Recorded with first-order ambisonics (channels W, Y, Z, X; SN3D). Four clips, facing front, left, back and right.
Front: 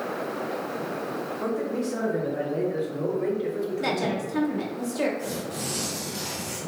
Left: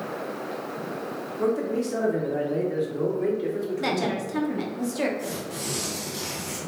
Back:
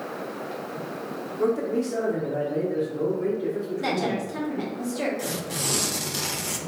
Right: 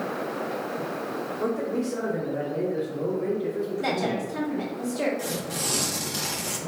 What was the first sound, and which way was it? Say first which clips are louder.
A man speaking: left 3 dB, back 6 dB; 140° left.